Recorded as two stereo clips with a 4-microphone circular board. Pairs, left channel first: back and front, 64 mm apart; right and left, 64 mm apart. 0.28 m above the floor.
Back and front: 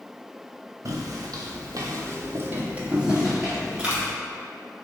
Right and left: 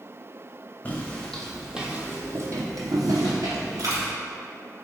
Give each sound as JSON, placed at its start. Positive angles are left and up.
{"t": 0.8, "sound": "footsteps", "azimuth_deg": -25, "distance_m": 1.0}
{"t": 3.8, "sound": "a dropped coin", "azimuth_deg": 80, "distance_m": 1.5}